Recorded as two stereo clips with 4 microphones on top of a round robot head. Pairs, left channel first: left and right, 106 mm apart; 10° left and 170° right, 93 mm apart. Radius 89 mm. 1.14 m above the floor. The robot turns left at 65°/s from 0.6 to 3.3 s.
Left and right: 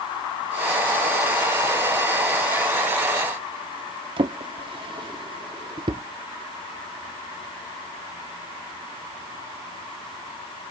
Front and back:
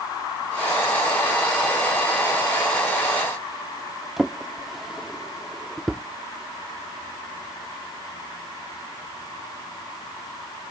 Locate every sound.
4.2 s a drawer: 80° right